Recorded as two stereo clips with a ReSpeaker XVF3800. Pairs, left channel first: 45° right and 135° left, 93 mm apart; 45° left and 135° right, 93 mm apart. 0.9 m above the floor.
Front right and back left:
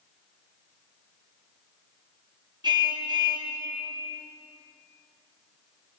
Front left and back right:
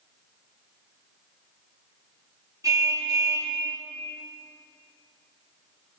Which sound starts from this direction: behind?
A car horn, at 2.6 s.